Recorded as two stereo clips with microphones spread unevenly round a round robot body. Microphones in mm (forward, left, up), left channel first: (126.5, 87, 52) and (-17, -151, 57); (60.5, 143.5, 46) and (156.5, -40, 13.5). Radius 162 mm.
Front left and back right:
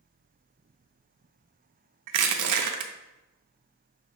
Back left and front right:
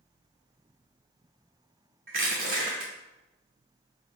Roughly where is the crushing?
Right.